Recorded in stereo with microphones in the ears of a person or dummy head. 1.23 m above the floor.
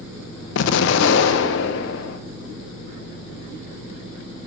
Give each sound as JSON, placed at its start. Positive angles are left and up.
{"t": 0.6, "sound": "an explosion", "side_deg": 70, "distance_m": 0.6}